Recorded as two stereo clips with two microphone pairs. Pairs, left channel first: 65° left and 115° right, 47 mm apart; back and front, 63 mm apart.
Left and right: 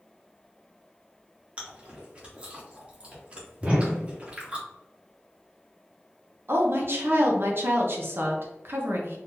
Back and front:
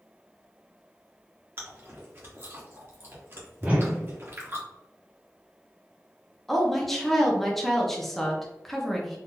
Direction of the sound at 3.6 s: 55° right.